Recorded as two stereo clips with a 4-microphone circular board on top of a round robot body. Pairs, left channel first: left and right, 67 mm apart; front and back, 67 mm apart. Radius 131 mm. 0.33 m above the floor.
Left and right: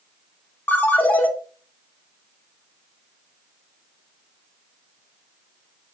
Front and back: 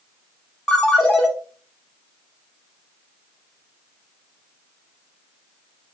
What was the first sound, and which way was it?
A ringtone, 65° left.